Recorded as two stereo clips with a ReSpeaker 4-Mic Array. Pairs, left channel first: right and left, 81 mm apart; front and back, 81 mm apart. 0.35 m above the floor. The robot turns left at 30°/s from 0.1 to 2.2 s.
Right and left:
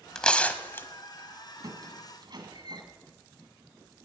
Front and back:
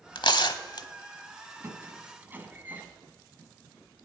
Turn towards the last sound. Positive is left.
turn(degrees=115)